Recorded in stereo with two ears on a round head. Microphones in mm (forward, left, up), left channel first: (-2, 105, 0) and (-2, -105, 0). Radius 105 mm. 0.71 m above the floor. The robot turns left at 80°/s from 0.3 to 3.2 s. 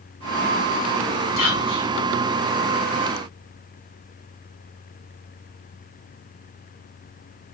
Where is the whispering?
115° left, 4.5 m; by 1.9 s 70° left, 4.5 m.